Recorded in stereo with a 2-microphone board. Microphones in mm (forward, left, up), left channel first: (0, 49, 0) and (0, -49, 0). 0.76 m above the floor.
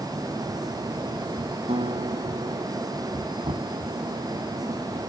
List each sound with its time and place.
1.7 s a guitar: 80° right
3.4 s knocking: 75° right (ahead or behind)